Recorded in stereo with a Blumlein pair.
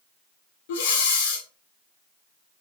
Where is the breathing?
50° left, 0.6 m.